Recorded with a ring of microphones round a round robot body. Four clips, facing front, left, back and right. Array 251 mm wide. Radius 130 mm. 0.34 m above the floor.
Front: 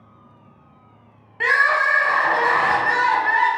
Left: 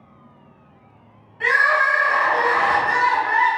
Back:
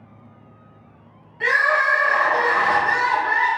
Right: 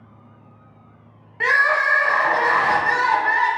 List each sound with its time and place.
1.4 s crying: 50° right, 0.6 m